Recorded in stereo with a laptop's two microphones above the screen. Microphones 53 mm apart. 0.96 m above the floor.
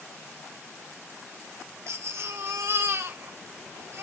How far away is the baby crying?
About 1.4 m.